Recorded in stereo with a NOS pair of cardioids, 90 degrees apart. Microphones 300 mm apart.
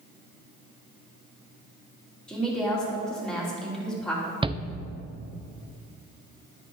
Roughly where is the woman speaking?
Ahead.